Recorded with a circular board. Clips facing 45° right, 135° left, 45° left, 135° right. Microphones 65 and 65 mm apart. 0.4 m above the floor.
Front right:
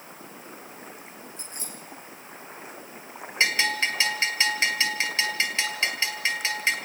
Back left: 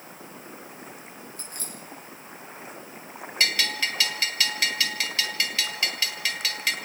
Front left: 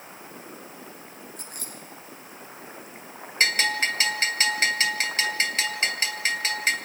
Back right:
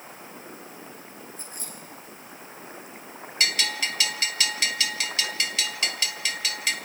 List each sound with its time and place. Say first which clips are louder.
1.4 s keys jangling: even, even; 20° left, 7.5 m
3.4 s a bell: front right 3 dB, front left 4 dB; 5° left, 1.7 m